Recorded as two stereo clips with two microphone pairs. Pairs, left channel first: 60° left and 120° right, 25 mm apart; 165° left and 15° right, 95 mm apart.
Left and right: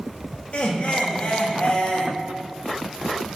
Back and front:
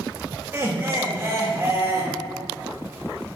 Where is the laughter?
45° left, 0.9 m.